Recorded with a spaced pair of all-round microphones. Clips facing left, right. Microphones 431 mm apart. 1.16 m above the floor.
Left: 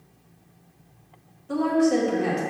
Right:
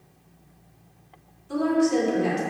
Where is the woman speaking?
70° left (ahead or behind), 1.7 m.